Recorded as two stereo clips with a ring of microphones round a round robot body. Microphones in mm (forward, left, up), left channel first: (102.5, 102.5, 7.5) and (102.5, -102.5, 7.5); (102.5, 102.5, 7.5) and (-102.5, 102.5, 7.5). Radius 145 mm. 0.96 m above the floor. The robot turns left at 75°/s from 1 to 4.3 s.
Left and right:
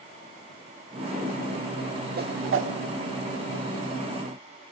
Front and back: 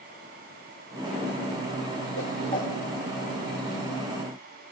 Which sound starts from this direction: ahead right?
A whoosh, at 2.2 s.